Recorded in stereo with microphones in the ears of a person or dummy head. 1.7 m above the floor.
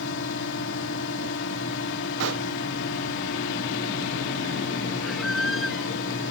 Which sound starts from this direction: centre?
A squeak, at 5.0 s.